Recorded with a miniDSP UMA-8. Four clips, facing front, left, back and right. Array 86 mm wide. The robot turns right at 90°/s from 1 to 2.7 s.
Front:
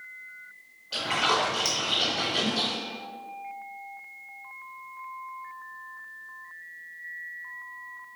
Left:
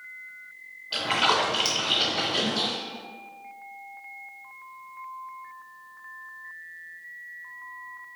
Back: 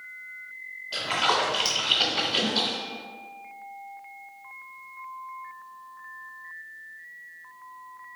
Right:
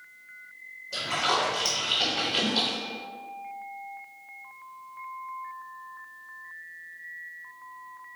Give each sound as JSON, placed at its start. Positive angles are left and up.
{"t": 0.9, "sound": "a splash", "azimuth_deg": 80, "distance_m": 1.5}